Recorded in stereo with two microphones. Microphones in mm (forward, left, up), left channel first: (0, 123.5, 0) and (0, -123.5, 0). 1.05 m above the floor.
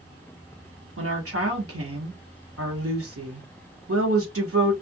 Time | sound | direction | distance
1.0 | a woman speaking | 60° right (ahead or behind) | 1.1 m